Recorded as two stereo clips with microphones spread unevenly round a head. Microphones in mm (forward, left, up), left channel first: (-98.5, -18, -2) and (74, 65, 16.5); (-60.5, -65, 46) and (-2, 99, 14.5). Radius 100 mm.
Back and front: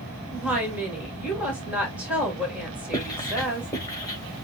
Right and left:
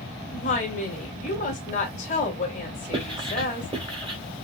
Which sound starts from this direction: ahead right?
A woman speaking, at 0.3 s.